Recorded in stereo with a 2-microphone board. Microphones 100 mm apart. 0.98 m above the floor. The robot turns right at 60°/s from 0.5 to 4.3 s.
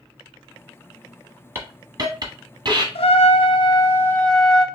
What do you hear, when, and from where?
1.6 s a hiss: 20° right (ahead or behind), 1.1 m; by 2.9 s 45° right (ahead or behind), 1.1 m
3.0 s a trumpet: 95° left, 0.8 m; by 4.7 s 175° left, 0.8 m